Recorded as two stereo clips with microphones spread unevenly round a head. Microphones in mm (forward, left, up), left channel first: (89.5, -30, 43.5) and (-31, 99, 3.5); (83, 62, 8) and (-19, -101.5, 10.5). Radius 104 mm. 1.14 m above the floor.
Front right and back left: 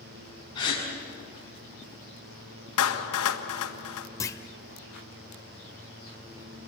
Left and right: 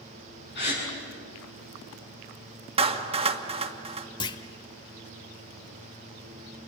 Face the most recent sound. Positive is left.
turn(degrees=0)